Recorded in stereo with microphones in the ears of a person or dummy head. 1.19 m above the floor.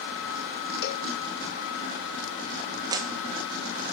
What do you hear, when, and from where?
0.8 s a cowbell: 60° left (ahead or behind), 1.6 m
2.9 s a clap: 20° right (ahead or behind), 0.9 m